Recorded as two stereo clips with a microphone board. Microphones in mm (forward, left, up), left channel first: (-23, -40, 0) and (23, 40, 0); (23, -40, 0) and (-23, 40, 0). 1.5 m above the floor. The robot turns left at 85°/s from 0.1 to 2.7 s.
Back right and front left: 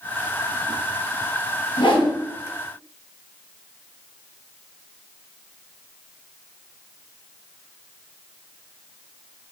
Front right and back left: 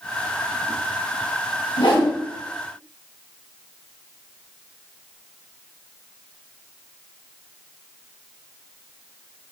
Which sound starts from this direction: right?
A whoosh, at 1.8 s.